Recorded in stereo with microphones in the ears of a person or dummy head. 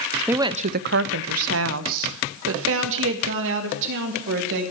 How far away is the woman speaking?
About 0.5 m.